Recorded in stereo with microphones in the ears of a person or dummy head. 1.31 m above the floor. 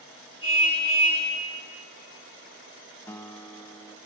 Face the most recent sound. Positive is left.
turn(degrees=15)  # may be behind; listen again after turning